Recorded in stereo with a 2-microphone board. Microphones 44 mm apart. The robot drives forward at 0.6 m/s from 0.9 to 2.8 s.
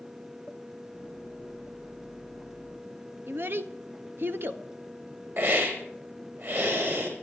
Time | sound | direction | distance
3.3 | a child speaking | 55° right (ahead or behind) | 1.2 m
5.4 | a hiss | 55° right (ahead or behind) | 4.5 m